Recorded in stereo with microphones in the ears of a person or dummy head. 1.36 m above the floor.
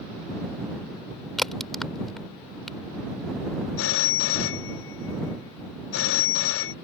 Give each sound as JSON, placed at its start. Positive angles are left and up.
{"t": 1.4, "sound": "a crack", "side_deg": 5}
{"t": 3.8, "sound": "a phone ringing", "side_deg": 65}